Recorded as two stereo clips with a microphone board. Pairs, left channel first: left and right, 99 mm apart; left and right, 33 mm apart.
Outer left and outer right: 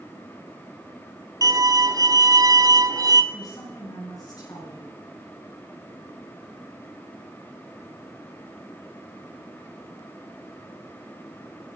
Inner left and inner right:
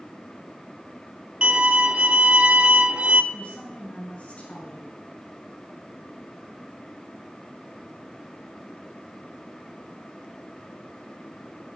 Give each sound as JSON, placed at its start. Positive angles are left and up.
{"t": 1.4, "sound": "a violin", "side_deg": -35, "distance_m": 0.8}
{"t": 3.3, "sound": "a woman speaking", "side_deg": 40, "distance_m": 6.5}